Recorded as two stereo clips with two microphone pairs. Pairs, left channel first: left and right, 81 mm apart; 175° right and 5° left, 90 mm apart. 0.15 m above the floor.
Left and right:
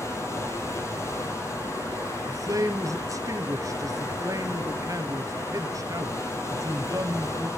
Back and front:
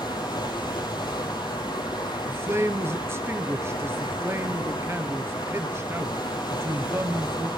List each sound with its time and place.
0.0 s running water: 150° left, 4.5 m
2.3 s a man speaking: 55° right, 2 m